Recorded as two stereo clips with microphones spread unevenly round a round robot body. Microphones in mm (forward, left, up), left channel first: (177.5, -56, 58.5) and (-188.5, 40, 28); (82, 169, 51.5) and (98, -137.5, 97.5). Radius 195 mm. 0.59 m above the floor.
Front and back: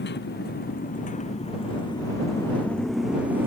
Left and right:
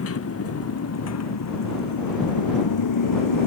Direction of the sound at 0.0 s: 50° left.